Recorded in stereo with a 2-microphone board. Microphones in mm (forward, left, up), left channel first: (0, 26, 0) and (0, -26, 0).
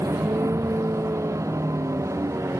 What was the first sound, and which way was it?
A vehicle, 75° right (ahead or behind).